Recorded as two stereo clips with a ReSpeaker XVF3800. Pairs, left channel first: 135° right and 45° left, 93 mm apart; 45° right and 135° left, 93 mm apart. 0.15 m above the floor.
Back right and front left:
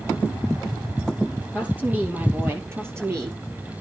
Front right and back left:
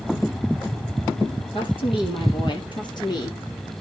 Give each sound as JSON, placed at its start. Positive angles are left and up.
{"t": 1.5, "sound": "a woman speaking", "azimuth_deg": -30, "distance_m": 5.0}